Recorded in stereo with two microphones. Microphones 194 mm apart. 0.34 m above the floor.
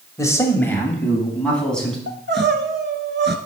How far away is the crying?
About 0.9 m.